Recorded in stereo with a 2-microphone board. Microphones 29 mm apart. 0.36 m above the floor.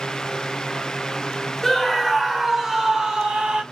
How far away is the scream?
About 1.3 m.